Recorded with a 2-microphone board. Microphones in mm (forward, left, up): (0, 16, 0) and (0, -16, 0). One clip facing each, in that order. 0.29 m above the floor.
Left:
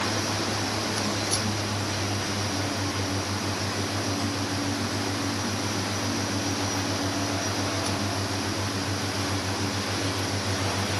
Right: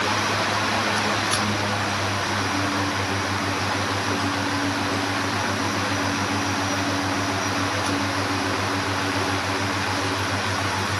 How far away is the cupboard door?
No cupboard door in this recording.